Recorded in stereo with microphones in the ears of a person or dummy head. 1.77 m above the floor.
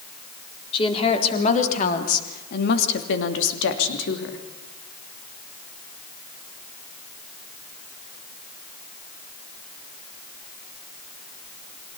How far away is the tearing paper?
I don't hear tearing paper.